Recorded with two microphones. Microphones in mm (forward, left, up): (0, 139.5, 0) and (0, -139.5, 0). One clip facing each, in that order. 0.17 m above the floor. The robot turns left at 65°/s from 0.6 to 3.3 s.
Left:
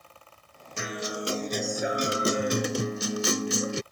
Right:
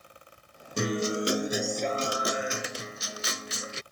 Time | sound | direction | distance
0.8 | a guitar | 120° right | ?